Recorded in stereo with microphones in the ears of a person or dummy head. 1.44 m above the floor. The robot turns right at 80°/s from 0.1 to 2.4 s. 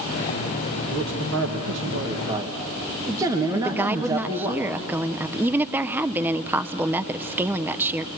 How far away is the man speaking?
About 1.7 m.